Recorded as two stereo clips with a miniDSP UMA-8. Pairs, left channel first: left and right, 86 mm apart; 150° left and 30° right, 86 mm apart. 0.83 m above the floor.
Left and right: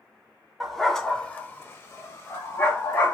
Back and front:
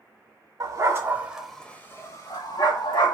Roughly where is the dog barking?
Ahead.